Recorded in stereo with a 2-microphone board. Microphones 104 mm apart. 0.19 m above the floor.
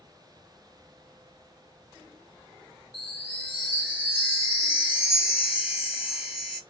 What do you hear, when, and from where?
2.9 s a chime: 20° right (ahead or behind), 1.4 m